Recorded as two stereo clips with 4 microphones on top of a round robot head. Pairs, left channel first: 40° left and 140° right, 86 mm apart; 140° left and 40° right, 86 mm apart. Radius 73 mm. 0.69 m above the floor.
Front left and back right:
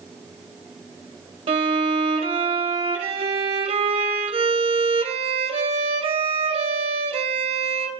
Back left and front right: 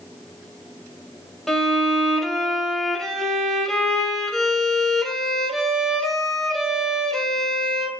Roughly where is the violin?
Behind right.